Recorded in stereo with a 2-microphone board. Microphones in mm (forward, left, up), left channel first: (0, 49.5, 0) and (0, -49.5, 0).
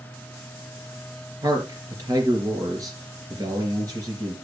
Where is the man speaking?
40° right (ahead or behind), 3 m.